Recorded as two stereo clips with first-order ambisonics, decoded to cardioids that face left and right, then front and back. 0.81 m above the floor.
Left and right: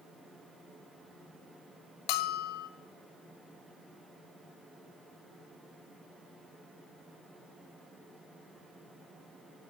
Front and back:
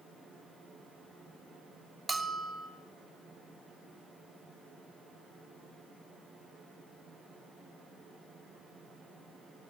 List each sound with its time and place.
2.1 s a bell: 105° left, 0.6 m